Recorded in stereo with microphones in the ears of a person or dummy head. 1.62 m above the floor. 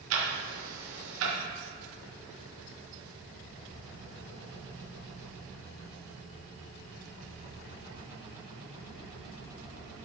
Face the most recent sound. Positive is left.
turn(degrees=-80)